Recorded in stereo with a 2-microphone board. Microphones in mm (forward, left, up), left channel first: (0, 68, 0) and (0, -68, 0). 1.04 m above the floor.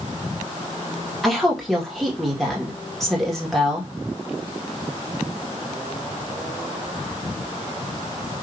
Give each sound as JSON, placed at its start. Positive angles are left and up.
{"t": 1.2, "sound": "a woman speaking", "side_deg": 0, "distance_m": 1.7}